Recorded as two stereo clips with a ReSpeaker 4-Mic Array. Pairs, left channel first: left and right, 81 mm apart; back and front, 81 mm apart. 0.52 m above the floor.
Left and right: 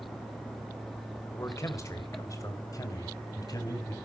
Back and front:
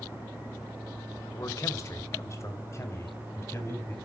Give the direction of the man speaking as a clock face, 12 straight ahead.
7 o'clock.